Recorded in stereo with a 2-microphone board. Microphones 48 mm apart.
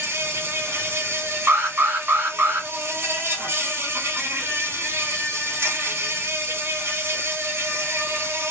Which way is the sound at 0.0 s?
55° right (ahead or behind).